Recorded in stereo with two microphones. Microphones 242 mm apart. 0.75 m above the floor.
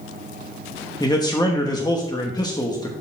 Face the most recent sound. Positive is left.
turn(degrees=15)  # may be behind; listen again after turning